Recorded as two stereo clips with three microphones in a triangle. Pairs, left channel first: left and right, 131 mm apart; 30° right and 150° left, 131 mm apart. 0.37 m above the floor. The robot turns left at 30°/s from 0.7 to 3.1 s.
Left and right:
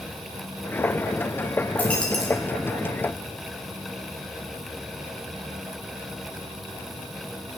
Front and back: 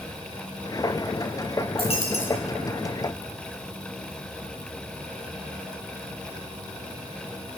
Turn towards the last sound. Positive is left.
turn(degrees=-25)